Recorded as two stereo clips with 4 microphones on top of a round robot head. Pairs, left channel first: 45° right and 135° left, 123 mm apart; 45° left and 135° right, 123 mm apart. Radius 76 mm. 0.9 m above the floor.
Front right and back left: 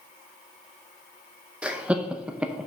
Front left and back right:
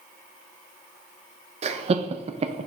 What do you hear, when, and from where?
1.6 s laughter: 150° right, 0.5 m